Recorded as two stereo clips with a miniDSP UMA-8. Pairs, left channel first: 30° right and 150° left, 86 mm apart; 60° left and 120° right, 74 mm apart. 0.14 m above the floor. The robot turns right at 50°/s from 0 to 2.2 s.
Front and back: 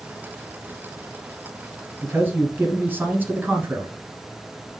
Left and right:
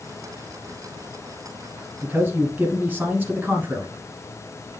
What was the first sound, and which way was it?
A man speaking, 175° right.